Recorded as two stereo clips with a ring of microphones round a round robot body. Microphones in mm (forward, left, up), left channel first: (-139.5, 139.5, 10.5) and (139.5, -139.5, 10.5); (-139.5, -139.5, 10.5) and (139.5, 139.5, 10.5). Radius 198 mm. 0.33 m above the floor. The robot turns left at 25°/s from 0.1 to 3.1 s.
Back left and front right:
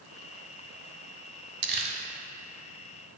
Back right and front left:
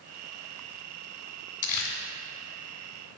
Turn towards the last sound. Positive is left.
turn(degrees=-135)